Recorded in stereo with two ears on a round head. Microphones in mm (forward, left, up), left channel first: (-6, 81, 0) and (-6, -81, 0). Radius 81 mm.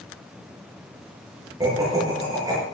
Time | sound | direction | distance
1.6 | laughter | 20° right (ahead or behind) | 8.5 m